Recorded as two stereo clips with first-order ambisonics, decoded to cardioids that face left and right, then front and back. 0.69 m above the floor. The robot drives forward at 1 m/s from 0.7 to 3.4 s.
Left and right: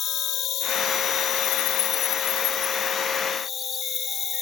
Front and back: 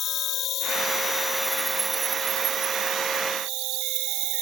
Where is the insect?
45° left; by 4.4 s 150° left.